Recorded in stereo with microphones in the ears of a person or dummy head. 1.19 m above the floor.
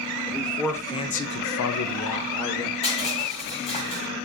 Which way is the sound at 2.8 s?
35° left (ahead or behind).